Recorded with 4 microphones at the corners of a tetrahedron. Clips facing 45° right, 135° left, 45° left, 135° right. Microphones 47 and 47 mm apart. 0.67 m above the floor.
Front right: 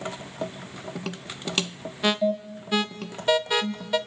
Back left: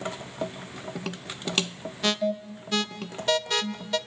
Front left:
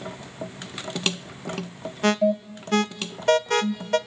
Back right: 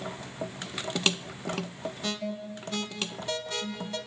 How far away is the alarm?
About 0.7 m.